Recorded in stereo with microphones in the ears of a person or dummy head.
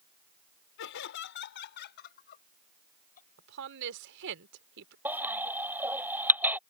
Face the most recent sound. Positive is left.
turn(degrees=-10)  # may be behind; listen again after turning